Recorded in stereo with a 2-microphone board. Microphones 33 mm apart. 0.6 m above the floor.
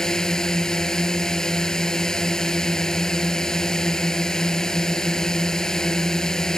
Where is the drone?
15° left (ahead or behind).